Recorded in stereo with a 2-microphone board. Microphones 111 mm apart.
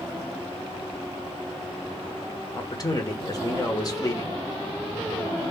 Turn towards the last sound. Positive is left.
turn(degrees=35)  # may be behind; listen again after turning